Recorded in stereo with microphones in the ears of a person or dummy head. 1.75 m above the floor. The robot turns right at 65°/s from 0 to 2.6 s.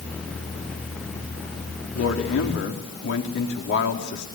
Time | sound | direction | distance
1.9 | a man speaking | 75° left | 4 m